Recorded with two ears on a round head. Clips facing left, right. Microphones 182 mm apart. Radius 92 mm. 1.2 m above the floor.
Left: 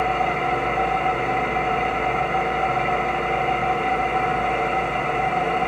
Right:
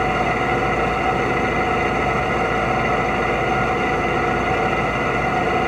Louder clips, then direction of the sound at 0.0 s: Right 2 dB; 60° right (ahead or behind).